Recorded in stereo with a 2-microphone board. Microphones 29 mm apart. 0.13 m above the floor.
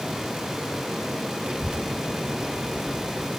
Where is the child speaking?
30° right (ahead or behind), 1.3 m.